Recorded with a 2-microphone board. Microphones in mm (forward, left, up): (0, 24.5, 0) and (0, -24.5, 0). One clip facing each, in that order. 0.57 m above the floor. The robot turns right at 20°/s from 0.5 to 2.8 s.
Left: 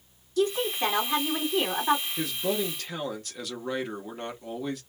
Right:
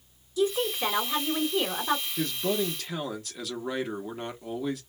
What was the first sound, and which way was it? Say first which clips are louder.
A woman speaking: left 1 dB; 105° left.